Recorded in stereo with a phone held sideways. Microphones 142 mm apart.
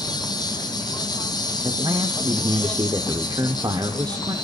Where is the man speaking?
30° right (ahead or behind), 0.8 m.